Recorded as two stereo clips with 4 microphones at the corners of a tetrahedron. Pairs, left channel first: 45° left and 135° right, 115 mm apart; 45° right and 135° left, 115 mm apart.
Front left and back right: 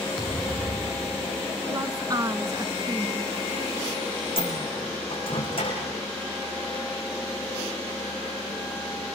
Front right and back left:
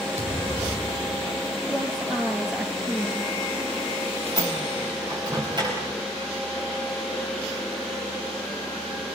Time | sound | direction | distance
0.2 | a thud | 135° left | 5.5 m
1.7 | a woman speaking | 145° right | 1.3 m
4.4 | a microwave | 85° left | 7 m